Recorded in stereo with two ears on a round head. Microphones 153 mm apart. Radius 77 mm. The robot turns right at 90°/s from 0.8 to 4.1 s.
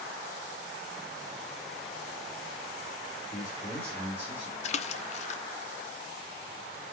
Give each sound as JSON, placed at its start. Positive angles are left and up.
{"t": 3.3, "sound": "a man speaking", "azimuth_deg": 120, "distance_m": 3.0}
{"t": 4.6, "sound": "a splash", "side_deg": 45, "distance_m": 0.6}